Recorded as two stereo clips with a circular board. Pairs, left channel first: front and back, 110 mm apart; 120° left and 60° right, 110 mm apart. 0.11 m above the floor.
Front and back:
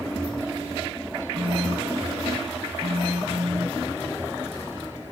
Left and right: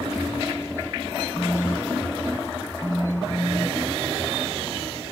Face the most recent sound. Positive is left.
turn(degrees=-165)